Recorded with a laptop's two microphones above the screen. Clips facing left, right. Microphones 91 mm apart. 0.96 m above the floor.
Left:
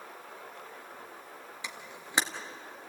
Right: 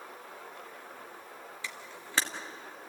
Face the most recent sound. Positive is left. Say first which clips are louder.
# left 1 dB
turn(degrees=20)  # may be behind; listen again after turning